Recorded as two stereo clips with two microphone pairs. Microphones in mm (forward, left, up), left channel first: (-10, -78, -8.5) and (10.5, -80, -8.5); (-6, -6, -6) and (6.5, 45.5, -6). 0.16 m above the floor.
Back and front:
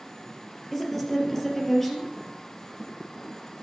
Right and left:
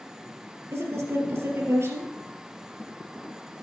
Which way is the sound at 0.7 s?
105° left.